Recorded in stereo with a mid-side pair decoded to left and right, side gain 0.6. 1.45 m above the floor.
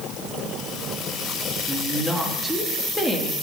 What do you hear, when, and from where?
1.7 s a woman speaking: 10° right, 3 m